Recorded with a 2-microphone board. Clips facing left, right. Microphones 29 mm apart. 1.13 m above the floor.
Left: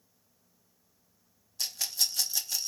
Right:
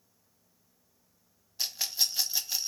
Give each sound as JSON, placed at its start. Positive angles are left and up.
{"t": 1.6, "sound": "a rattle", "side_deg": -20, "distance_m": 0.7}